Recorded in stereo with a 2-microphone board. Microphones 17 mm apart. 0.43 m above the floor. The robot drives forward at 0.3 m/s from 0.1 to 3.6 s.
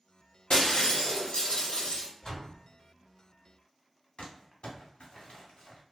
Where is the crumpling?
85° left, 0.9 m.